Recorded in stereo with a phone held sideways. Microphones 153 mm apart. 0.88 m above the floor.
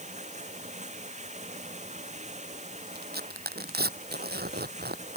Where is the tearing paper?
80° right.